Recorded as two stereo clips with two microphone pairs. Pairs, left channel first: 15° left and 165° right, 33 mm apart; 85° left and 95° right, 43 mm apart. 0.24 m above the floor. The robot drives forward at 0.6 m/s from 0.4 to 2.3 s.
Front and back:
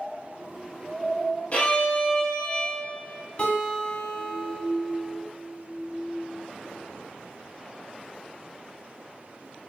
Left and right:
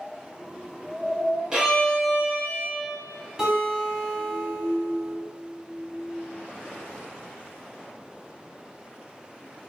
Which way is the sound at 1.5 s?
25° right.